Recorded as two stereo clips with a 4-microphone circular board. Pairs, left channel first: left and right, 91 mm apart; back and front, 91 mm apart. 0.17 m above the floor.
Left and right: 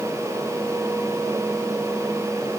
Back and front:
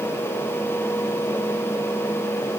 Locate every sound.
Only background noise.